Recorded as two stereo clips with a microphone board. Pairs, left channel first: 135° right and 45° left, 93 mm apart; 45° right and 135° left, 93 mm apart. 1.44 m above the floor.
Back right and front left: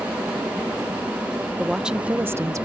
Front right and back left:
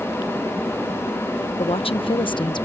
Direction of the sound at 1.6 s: 45° right.